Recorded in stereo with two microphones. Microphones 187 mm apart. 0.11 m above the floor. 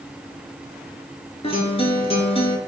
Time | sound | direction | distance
1.4 | a guitar | 35° left (ahead or behind) | 0.6 m